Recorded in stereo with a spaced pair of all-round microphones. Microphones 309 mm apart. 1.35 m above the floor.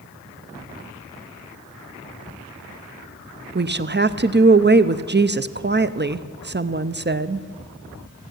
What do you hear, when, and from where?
3.5 s a woman speaking: 35° right (ahead or behind), 0.5 m